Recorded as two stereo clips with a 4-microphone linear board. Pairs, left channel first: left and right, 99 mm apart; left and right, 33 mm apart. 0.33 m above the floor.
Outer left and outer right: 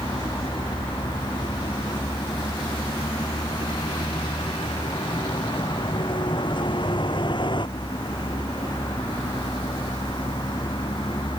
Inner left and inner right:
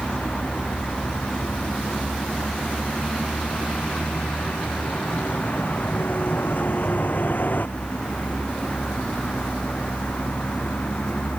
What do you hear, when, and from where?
0.0 s a vehicle: 50° left (ahead or behind)